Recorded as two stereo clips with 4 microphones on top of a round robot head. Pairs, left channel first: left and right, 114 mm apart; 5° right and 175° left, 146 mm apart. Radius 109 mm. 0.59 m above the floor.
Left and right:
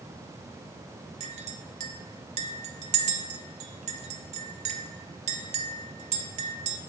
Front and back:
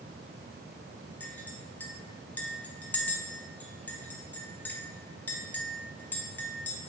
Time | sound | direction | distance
1.2 | a clink | 85° right | 0.5 m